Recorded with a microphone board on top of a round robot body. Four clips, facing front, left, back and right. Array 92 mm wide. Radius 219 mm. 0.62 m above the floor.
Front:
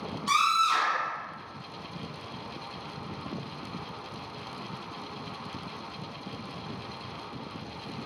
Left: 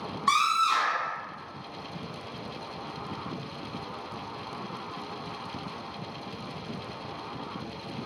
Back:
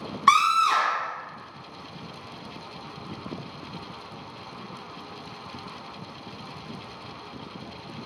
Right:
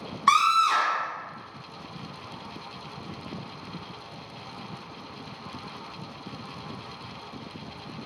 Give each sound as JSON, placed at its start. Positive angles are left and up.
{"t": 0.3, "sound": "a scream", "azimuth_deg": -155, "distance_m": 3.5}